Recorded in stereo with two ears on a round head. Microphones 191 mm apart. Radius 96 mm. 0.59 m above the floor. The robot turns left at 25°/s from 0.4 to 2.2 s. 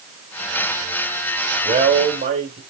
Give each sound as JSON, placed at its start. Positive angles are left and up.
{"t": 1.6, "sound": "a man speaking", "side_deg": -25, "distance_m": 3.0}